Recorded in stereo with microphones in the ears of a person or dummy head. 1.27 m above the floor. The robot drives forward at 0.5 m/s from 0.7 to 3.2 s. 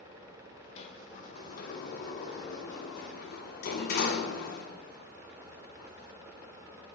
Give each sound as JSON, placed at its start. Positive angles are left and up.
{"t": 0.8, "sound": "a sliding door", "side_deg": 40, "distance_m": 1.4}